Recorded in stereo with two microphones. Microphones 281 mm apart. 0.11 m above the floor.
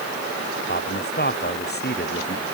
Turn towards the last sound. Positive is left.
turn(degrees=35)  # may be behind; listen again after turning